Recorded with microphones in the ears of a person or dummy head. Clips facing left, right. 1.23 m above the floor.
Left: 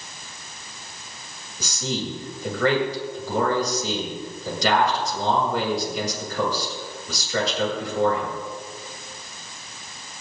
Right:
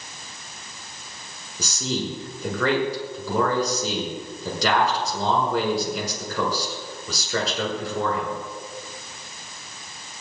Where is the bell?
No bell in this recording.